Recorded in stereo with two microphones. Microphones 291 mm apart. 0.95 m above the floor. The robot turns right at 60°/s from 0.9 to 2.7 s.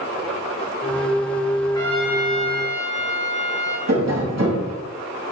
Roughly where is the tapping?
Right.